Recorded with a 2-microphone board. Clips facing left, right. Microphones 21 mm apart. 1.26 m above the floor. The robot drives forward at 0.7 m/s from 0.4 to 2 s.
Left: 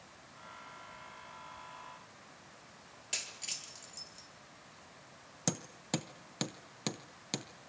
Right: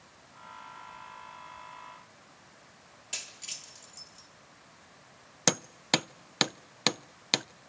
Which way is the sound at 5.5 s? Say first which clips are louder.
Right 10 dB; 50° right (ahead or behind).